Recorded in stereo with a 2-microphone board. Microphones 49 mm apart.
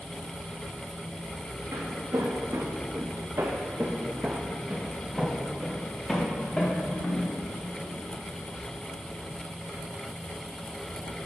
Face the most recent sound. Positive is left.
turn(degrees=25)  # may be behind; listen again after turning